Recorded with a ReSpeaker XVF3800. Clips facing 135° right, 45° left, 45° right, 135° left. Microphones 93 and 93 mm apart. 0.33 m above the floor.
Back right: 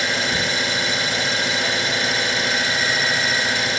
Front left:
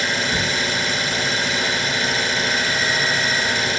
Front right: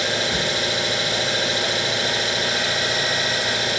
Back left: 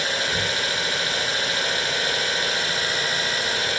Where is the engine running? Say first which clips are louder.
Even, front right 2 dB; 45° right, 2 m.